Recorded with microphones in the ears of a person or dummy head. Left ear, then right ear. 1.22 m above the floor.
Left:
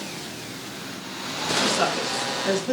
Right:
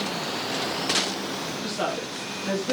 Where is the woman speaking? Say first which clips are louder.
Left 5 dB; 20° left (ahead or behind), 1.9 m; by 2.7 s 25° left (ahead or behind), 2.5 m.